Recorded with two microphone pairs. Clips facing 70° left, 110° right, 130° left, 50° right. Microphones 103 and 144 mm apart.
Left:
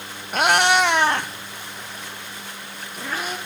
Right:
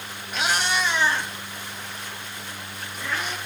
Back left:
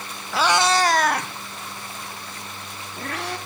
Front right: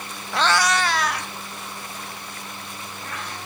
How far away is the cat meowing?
About 0.7 m.